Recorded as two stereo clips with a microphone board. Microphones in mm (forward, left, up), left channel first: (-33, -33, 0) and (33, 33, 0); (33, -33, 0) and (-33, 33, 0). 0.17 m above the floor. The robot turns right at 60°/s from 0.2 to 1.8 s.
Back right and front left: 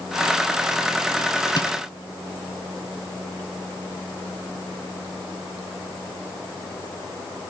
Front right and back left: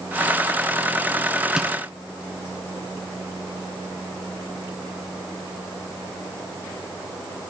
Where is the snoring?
I don't hear snoring.